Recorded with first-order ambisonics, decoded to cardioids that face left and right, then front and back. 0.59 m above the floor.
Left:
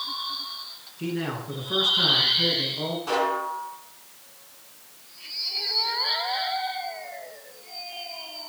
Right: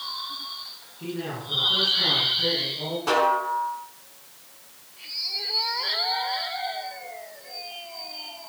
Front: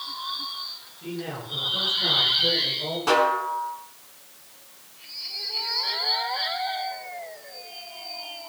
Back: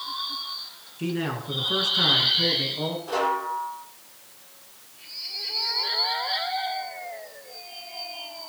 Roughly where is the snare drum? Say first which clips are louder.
Right 5 dB, front 5 dB; ahead right.